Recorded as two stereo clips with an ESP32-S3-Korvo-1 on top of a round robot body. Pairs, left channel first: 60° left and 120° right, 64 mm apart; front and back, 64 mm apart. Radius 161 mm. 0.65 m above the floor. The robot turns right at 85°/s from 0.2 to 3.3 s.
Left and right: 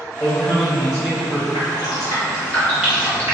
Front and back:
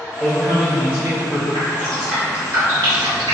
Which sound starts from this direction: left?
A man speaking, at 0.2 s.